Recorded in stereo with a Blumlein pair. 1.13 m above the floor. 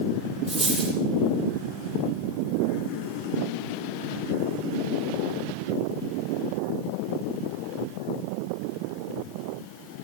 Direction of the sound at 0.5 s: 10° right.